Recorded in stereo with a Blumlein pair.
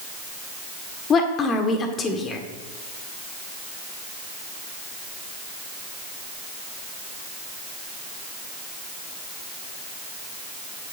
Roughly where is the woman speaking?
Ahead left.